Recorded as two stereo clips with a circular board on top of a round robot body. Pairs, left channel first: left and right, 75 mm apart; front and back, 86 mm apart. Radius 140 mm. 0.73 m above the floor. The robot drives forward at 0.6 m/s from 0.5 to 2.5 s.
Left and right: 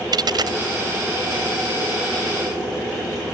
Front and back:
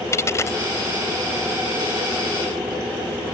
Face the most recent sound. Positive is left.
turn(degrees=-100)